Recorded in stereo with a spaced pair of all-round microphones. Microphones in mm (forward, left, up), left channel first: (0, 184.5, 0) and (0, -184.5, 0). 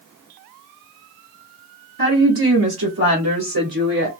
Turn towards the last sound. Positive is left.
turn(degrees=-55)  # may be behind; listen again after turning